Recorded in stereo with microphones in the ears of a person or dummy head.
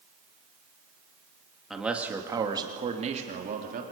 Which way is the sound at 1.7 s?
5° right (ahead or behind).